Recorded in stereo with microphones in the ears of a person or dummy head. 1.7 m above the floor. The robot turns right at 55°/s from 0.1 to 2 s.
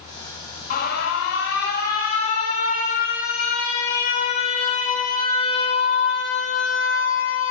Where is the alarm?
60° left, 1.7 m; by 7.5 s 130° left, 1.7 m.